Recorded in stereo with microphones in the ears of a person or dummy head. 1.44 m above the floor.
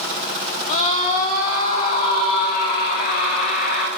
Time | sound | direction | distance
0.7 | a scream | 40° left (ahead or behind) | 3 m